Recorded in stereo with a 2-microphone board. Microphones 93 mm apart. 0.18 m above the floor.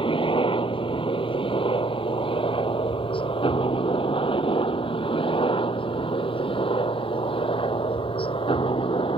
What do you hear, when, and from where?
0.0 s a helicopter: 70° left (ahead or behind); by 9.2 s 75° left (ahead or behind)